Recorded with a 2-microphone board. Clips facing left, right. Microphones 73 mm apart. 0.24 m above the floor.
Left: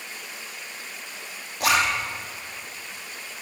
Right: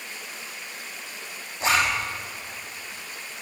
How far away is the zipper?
About 6 m.